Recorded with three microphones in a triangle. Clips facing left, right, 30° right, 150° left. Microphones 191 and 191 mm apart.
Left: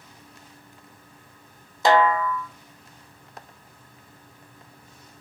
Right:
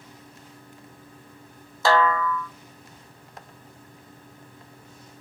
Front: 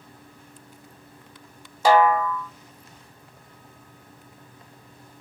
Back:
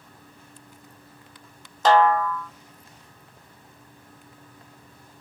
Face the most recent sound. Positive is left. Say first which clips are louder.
# left 2 dB, even
turn(degrees=40)